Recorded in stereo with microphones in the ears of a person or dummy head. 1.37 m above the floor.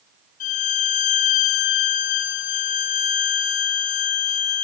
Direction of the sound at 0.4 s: 40° left (ahead or behind).